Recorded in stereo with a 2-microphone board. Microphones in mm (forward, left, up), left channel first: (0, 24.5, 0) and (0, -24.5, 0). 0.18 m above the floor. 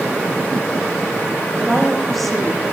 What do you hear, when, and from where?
1.6 s a woman speaking: centre (ahead or behind), 8.5 m